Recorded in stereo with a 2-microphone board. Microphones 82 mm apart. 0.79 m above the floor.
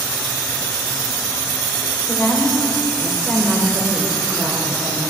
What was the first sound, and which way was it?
A woman speaking, 40° left (ahead or behind).